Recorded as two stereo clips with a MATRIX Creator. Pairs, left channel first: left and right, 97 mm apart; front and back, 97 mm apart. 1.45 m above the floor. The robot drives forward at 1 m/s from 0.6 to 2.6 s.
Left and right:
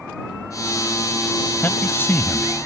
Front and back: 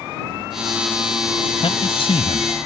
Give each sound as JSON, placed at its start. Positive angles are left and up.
{"t": 1.6, "sound": "a man speaking", "azimuth_deg": 20}